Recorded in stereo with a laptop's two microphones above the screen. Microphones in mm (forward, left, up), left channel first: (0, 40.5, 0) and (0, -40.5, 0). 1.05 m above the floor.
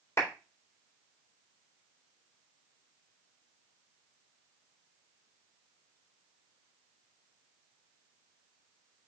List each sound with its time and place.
0.2 s a clap: 35° left (ahead or behind), 3.5 m